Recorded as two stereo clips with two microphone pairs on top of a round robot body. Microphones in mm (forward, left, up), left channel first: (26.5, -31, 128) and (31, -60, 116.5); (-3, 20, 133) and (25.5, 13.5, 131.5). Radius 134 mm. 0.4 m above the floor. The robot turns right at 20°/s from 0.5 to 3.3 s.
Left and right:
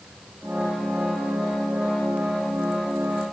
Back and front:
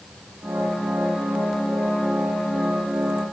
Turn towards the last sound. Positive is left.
No sound to turn to.